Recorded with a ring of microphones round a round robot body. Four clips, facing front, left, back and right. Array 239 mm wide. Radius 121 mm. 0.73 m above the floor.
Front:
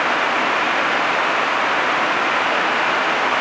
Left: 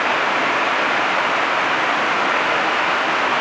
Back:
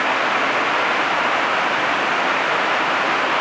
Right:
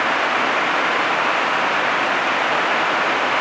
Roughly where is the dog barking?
I don't hear a dog barking.